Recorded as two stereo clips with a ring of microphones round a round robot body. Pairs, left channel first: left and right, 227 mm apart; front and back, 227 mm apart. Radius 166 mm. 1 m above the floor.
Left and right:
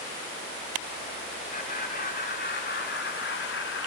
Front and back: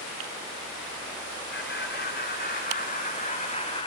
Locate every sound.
1.5 s laughter: 40° left, 4 m; by 3.9 s 65° left, 3 m